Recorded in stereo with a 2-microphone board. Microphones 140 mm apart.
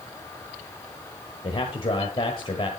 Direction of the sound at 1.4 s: 40° left (ahead or behind).